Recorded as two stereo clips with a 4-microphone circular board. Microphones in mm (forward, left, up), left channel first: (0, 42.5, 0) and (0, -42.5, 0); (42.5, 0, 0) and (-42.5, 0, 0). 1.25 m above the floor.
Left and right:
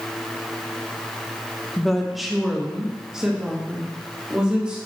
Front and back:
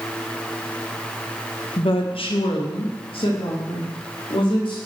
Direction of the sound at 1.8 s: 5° left.